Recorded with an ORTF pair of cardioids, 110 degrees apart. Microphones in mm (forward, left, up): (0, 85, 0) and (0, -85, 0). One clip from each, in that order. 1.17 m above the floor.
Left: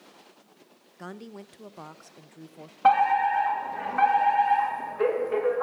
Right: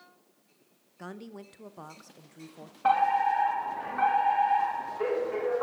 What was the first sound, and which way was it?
A woman speaking, 10° left.